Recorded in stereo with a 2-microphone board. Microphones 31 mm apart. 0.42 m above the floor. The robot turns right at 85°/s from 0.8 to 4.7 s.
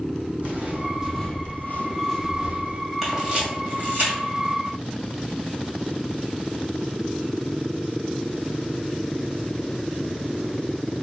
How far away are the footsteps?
About 1.3 m.